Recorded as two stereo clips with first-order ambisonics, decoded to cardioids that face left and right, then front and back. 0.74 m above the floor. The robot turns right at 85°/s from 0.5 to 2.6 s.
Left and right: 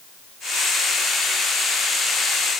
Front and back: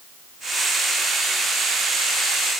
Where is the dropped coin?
No dropped coin in this recording.